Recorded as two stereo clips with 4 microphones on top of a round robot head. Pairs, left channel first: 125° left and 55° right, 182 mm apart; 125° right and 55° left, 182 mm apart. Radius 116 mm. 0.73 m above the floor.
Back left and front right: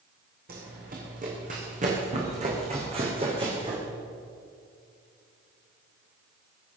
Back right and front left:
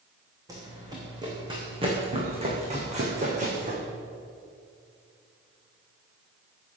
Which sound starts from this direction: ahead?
Running footsteps, at 0.5 s.